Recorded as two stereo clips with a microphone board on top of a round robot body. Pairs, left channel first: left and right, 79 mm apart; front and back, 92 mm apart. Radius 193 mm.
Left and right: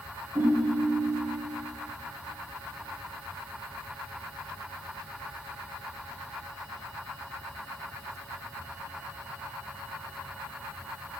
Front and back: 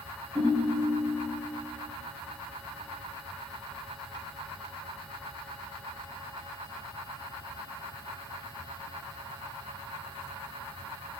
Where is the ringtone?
150° right, 3.5 m.